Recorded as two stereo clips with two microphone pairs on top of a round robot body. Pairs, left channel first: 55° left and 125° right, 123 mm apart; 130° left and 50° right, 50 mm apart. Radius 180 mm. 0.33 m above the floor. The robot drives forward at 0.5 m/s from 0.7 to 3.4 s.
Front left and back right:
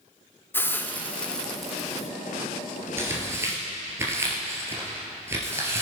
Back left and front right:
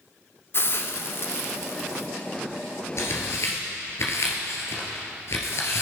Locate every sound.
0.5 s a hiss: 135° left, 1.2 m; by 2.1 s 155° left, 1.7 m
3.0 s tearing paper: 160° left, 2 m; by 5.8 s 165° left, 2.5 m